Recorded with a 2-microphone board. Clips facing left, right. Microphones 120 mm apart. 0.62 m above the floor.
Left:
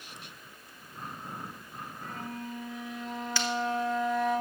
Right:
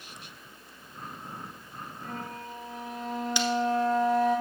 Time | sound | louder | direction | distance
2.0 | a flute | even | 40° right (ahead or behind) | 1.4 m
3.4 | breaking glass | right 4 dB | 20° right (ahead or behind) | 0.8 m